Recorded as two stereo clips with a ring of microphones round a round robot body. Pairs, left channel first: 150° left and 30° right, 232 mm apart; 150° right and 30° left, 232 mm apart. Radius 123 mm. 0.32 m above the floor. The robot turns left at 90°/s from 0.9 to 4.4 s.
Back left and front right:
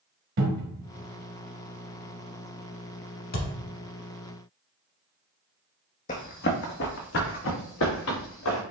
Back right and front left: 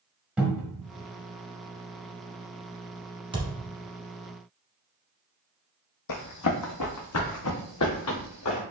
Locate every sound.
0.4 s a cupboard door: 55° right, 1.3 m
3.3 s a thud: 100° left, 1.0 m; by 3.5 s 85° left, 1.0 m
6.1 s running footsteps: 150° right, 0.7 m; by 8.6 s 175° right, 2 m